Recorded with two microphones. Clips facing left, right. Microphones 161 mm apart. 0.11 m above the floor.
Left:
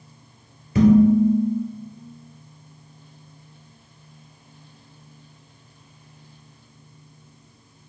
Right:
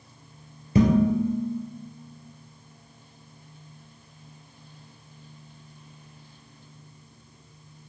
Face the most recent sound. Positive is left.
turn(degrees=-25)  # may be behind; listen again after turning